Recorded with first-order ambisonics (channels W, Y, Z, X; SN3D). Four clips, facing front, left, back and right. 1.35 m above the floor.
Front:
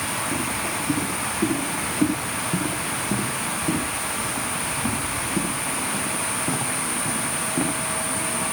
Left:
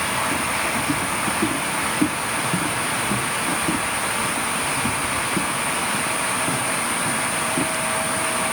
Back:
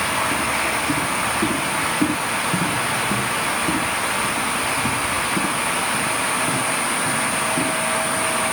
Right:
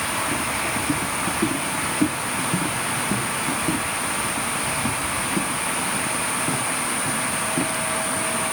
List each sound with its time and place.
Only background noise.